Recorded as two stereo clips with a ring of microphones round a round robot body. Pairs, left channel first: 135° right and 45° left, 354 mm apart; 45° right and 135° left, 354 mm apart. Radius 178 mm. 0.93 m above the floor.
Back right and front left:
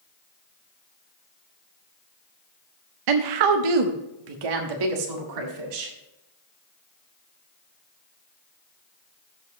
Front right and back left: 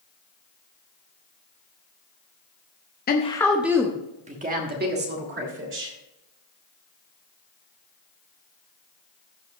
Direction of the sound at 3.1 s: 20° left.